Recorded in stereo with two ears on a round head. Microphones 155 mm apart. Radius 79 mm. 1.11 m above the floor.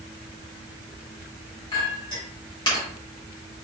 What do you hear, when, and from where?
1.7 s a clink: 25° left (ahead or behind), 1.7 m